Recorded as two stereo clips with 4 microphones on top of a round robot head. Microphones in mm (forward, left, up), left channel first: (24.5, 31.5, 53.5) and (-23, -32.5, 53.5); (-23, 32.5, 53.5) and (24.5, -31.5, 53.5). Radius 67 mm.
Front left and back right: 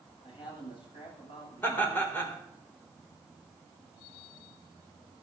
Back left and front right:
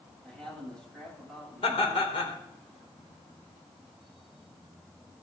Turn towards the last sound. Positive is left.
turn(degrees=120)